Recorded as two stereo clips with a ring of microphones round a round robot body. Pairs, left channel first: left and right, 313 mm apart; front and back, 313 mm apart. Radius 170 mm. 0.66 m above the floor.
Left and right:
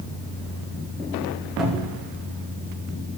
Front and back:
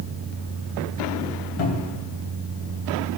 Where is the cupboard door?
Straight ahead, 3.5 m.